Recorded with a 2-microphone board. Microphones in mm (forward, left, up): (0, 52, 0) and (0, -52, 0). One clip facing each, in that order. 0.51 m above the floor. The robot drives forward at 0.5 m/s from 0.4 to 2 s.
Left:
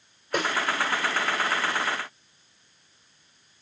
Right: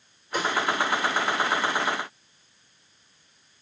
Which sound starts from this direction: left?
A snare drum, at 0.3 s.